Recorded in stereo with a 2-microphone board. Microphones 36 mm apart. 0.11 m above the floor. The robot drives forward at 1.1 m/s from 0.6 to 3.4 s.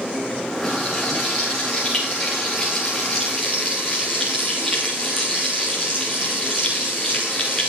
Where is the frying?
10° left (ahead or behind), 9 m; by 7.7 s 15° left (ahead or behind), 6 m.